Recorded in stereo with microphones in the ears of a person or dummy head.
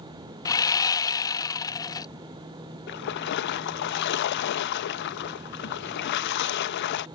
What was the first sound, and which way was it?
Sawing, 20° left (ahead or behind).